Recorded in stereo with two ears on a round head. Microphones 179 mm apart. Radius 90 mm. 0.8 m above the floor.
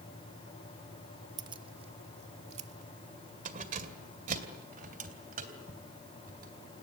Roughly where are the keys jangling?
Right.